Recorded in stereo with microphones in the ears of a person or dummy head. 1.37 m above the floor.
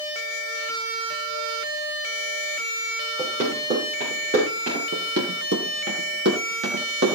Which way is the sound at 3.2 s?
40° right (ahead or behind).